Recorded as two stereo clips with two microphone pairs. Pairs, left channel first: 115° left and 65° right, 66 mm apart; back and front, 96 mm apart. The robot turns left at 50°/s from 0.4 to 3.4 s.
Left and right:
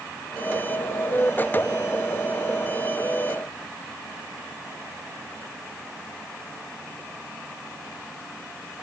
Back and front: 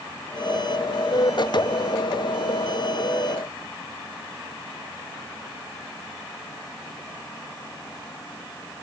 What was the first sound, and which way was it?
Only background noise.